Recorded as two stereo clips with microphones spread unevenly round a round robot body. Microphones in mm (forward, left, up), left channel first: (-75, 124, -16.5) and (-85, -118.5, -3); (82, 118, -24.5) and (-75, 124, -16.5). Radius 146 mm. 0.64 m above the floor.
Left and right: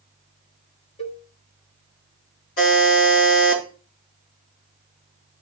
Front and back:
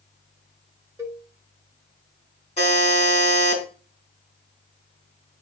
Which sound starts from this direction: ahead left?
A buzzer, at 2.6 s.